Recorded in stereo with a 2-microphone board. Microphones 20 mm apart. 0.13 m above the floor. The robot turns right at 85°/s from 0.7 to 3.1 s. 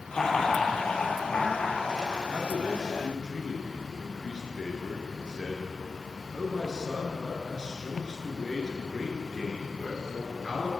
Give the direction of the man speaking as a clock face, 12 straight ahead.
10 o'clock.